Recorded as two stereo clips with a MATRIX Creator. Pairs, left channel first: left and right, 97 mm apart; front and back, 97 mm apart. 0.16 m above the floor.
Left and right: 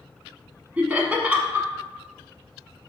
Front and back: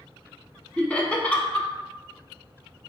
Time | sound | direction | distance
0.8 | laughter | 45° right | 1.0 m